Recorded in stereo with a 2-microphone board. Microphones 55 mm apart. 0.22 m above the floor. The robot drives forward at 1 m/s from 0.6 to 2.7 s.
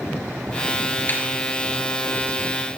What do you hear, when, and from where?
1.1 s a snare drum: 35° left (ahead or behind), 3.5 m; by 1.2 s 40° left (ahead or behind), 3 m